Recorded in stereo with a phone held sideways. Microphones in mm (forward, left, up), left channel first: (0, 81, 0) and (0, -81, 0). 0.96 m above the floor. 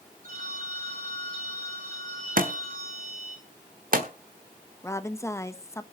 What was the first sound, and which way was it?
A phone ringing, 60° right (ahead or behind).